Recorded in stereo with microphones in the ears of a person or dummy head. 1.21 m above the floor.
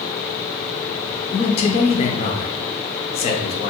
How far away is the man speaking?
About 0.5 m.